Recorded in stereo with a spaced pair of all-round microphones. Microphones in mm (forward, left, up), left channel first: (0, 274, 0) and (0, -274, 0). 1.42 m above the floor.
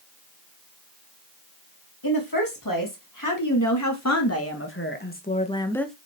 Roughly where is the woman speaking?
Left.